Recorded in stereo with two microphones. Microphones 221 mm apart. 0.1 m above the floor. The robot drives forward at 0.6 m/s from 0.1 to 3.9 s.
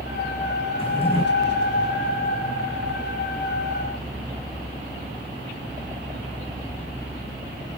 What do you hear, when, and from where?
0.8 s a drawer: 25° left (ahead or behind), 3 m